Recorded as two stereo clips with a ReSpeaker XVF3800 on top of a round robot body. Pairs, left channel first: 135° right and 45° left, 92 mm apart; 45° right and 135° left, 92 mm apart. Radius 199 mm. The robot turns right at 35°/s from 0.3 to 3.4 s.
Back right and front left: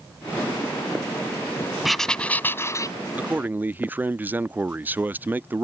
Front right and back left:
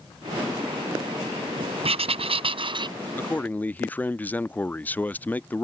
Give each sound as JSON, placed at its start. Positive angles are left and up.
{"t": 1.8, "sound": "writing", "azimuth_deg": 135}
{"t": 3.2, "sound": "a man speaking", "azimuth_deg": -5}